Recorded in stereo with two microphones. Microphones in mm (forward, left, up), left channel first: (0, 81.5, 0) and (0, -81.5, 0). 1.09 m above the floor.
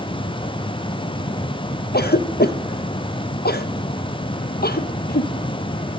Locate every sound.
1.9 s a cough: 75° left (ahead or behind), 0.9 m